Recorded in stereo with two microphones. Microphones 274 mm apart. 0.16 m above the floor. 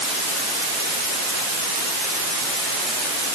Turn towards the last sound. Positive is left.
No sound to turn to.